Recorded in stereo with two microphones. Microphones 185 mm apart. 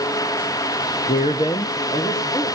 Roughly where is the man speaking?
Left.